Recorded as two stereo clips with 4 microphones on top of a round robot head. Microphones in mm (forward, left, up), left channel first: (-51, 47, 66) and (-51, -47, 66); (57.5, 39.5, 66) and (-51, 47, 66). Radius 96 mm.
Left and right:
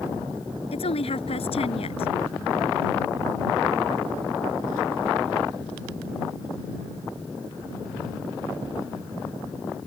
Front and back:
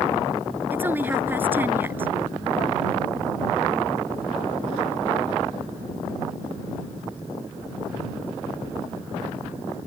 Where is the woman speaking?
105° left.